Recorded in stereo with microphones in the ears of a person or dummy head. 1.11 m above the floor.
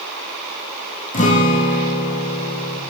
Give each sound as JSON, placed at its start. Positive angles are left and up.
{"t": 1.1, "sound": "a guitar", "side_deg": 40, "distance_m": 1.3}